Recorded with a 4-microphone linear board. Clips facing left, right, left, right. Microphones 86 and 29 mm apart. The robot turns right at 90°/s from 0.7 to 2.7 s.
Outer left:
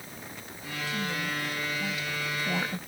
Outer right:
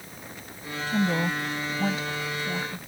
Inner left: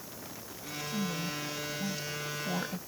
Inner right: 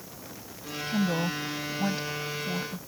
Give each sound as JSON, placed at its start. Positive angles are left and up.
{"t": 0.9, "sound": "a woman speaking", "side_deg": -45}